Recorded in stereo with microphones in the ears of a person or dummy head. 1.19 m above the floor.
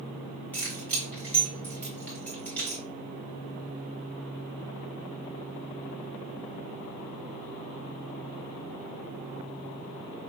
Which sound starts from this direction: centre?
Keys jangling, at 0.5 s.